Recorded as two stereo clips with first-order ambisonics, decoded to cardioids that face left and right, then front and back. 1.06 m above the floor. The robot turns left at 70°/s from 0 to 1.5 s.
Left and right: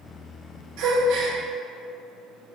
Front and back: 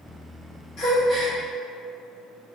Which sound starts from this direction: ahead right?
A gasp, at 0.8 s.